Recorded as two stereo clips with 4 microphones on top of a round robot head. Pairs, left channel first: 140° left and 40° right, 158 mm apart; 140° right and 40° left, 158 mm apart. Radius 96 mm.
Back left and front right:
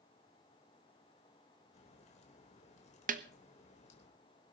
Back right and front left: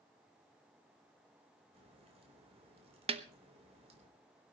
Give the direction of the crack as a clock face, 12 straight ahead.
9 o'clock.